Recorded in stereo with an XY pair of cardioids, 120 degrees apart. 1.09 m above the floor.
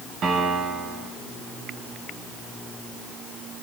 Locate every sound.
0.2 s a piano: 60° right, 9.5 m